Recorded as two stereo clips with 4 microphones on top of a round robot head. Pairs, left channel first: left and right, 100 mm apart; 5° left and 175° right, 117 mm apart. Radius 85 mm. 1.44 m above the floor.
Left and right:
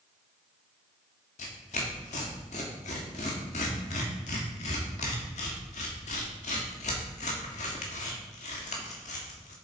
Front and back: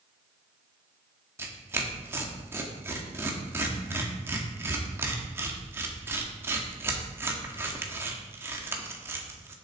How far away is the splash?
No splash in this recording.